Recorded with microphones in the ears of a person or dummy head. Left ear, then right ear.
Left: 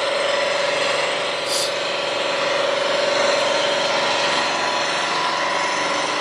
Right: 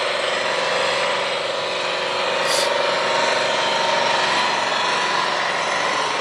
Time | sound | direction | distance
0.0 | an engine running | 35° right (ahead or behind) | 2.5 m